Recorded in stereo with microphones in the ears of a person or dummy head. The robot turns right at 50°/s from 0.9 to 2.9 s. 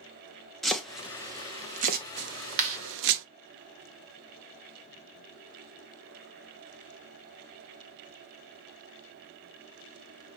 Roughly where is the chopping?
Centre.